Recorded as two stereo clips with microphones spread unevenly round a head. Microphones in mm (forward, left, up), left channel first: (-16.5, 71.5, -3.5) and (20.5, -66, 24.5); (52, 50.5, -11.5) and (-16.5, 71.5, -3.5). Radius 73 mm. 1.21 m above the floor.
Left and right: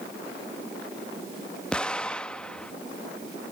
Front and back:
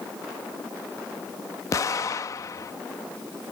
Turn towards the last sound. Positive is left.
turn(degrees=15)